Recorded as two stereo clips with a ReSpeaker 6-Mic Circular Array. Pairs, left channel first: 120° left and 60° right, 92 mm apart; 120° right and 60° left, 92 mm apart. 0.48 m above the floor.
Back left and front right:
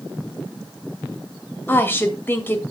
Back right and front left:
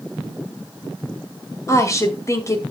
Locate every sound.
1.7 s a woman speaking: 175° right, 2.0 m